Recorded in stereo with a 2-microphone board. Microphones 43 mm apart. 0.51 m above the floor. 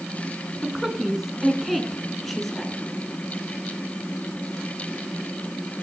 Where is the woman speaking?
10° right (ahead or behind), 4.5 m; by 2.8 s 5° left (ahead or behind), 5.5 m.